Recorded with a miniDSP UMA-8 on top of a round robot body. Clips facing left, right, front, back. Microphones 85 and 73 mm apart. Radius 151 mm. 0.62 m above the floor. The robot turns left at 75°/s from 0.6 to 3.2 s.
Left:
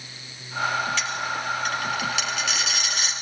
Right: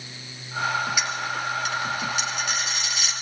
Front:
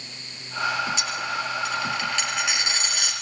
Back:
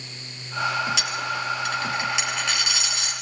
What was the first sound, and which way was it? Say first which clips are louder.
A dropped coin: even, even; 170° right.